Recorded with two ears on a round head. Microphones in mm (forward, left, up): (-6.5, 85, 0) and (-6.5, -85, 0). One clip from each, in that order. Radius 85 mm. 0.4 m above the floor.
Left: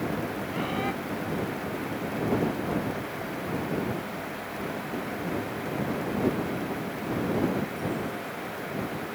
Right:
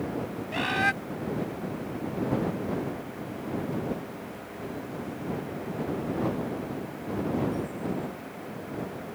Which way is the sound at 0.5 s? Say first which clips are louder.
Right 7 dB; 55° right (ahead or behind).